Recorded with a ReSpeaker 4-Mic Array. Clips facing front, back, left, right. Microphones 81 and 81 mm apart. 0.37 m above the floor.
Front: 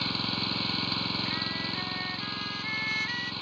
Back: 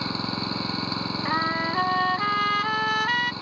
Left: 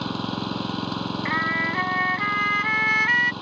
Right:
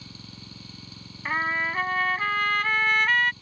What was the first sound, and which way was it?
An engine running, 110° left.